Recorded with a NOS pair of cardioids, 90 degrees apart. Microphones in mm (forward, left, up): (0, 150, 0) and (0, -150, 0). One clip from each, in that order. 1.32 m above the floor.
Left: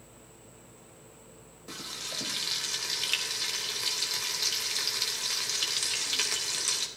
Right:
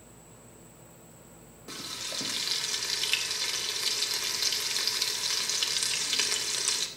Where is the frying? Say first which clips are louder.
Right 1 dB; 5° right, 3 m.